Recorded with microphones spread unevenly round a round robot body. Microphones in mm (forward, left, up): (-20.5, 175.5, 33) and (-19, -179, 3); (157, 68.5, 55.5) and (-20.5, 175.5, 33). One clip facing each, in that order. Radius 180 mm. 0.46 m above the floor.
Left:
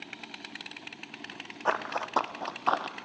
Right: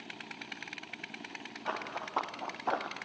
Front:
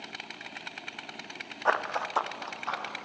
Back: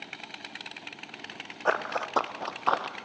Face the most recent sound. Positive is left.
turn(degrees=160)